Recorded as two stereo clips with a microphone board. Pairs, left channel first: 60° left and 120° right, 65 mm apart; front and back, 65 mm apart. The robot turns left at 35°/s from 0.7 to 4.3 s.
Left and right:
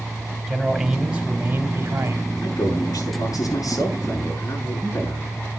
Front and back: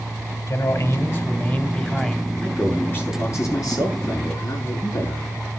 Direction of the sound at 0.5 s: 35° right.